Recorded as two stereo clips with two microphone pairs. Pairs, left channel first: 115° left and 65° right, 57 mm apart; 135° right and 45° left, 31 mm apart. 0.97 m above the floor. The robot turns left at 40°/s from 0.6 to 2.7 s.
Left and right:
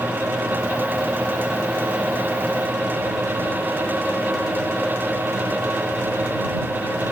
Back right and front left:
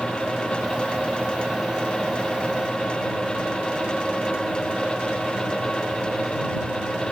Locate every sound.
Only background noise.